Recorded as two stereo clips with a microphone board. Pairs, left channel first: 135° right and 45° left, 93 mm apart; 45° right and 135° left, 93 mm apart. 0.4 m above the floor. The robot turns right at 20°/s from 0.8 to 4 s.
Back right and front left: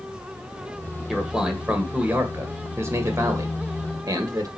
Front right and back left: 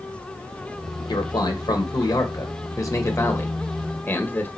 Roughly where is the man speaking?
Ahead right.